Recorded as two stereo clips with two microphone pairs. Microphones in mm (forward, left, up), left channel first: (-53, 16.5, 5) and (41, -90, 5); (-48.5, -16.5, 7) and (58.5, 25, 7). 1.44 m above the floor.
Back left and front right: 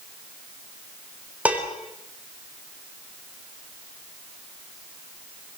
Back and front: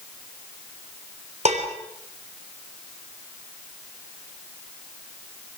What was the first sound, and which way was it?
Dishes clattering, 30° left.